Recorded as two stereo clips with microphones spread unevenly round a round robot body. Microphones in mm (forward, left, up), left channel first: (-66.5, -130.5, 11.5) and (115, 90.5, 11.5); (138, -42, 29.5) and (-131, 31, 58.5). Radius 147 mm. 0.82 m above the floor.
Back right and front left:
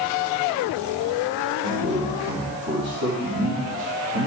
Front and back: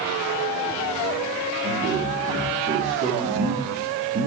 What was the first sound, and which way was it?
A man speaking, 100° left.